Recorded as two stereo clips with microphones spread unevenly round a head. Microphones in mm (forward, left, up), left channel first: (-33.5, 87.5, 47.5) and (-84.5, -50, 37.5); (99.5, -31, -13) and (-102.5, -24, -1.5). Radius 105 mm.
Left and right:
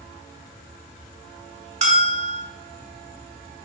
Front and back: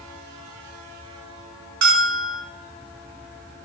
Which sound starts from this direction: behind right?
A bell, at 1.8 s.